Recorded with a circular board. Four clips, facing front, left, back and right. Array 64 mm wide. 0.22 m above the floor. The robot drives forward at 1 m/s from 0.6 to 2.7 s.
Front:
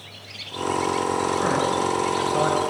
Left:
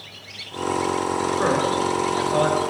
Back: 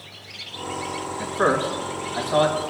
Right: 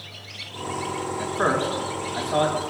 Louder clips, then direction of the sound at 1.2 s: Even, even; 130° right.